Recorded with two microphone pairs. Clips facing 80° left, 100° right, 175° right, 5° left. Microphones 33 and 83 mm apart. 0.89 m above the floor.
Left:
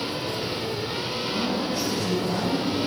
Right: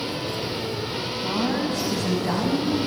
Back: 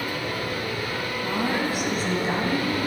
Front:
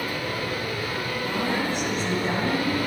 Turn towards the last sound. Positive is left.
turn(degrees=-85)